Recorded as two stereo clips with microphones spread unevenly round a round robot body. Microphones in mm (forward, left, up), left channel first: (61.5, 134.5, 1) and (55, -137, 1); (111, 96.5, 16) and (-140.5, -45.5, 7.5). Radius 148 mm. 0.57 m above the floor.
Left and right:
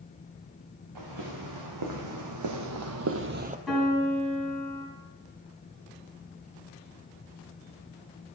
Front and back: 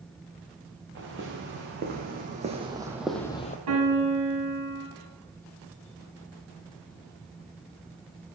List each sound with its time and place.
0.9 s footsteps: 95° right, 3 m; by 3.6 s 30° right, 1.0 m
3.7 s a piano: straight behind, 3.5 m